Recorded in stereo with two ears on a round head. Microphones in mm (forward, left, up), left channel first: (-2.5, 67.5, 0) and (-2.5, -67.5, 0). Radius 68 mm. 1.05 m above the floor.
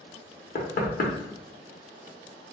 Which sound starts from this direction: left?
Knocking, at 0.6 s.